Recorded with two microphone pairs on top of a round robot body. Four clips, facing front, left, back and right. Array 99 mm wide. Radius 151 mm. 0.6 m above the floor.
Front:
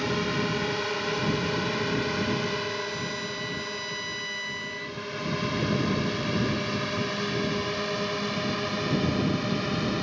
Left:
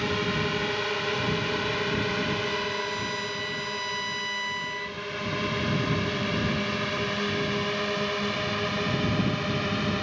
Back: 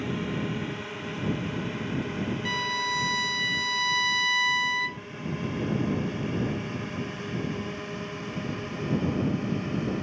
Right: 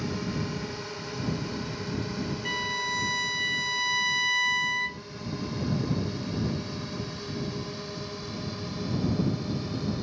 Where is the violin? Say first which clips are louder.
Left 2 dB, back 1 dB; 150° right.